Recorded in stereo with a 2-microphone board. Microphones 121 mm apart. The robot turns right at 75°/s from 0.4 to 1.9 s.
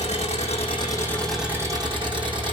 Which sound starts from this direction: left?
An engine running, at 0.0 s.